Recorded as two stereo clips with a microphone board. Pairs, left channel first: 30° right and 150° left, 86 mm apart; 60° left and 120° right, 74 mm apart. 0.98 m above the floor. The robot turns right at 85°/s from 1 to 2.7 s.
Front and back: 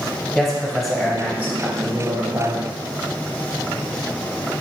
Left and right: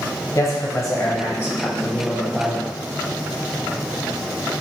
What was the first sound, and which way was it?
A man speaking, 60° left.